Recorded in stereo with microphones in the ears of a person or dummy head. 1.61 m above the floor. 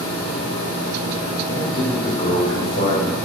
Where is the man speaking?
45° left (ahead or behind), 2.5 m.